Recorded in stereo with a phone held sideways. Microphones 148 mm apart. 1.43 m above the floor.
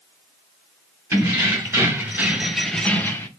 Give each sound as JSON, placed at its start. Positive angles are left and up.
{"t": 1.1, "sound": "keys jangling", "side_deg": -20, "distance_m": 1.2}